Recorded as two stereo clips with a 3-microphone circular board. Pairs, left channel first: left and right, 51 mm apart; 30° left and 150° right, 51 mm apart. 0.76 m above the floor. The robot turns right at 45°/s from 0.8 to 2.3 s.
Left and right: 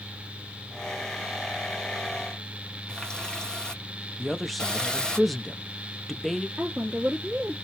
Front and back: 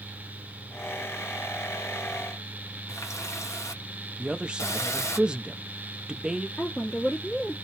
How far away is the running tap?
About 1.0 m.